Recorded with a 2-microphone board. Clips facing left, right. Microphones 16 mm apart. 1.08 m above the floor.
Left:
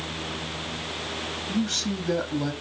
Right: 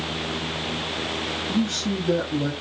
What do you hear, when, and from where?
1.5 s a man speaking: 20° left (ahead or behind), 1.8 m